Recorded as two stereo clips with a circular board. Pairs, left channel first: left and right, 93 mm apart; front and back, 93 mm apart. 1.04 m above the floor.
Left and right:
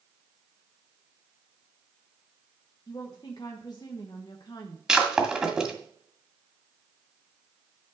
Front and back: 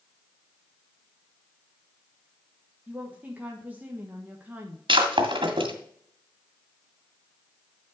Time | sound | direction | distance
2.9 | a woman speaking | 115° left | 1.2 m
4.9 | breaking glass | 170° right | 1.8 m